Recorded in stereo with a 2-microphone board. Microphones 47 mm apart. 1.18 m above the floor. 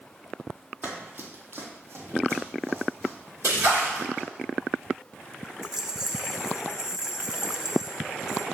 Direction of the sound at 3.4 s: 75° right (ahead or behind).